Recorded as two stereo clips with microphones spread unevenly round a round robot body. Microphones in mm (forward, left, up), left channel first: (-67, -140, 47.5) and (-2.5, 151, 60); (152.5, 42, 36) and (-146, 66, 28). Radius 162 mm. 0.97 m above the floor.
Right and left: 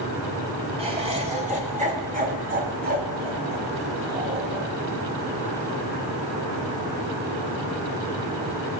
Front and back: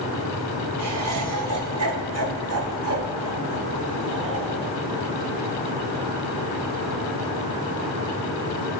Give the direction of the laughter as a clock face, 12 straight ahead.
7 o'clock.